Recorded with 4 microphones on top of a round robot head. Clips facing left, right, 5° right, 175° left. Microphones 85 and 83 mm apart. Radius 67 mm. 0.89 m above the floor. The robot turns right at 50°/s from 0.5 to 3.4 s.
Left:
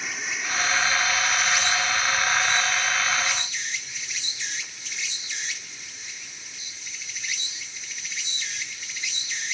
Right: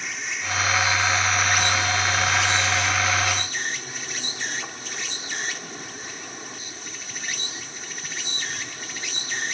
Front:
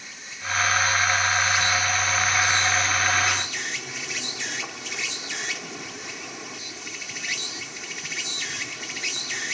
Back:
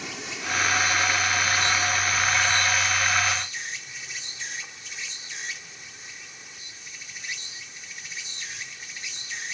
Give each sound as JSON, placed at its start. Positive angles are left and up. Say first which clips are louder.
{"t": 0.0, "sound": "an insect", "louder": "even, back 3 dB", "azimuth_deg": 175}